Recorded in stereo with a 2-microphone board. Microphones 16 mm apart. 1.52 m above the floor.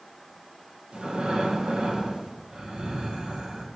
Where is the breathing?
75° right (ahead or behind), 2.0 m.